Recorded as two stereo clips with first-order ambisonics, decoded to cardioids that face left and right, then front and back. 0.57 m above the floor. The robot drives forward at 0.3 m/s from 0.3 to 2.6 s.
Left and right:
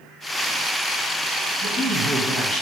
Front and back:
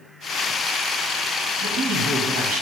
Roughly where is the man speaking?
Behind.